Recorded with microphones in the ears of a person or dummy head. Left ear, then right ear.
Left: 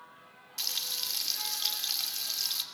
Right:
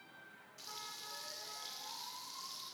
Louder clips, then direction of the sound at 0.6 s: Left 15 dB; 80° left.